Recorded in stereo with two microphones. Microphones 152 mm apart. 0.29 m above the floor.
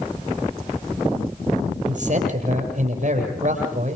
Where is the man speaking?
55° right (ahead or behind), 7.5 m.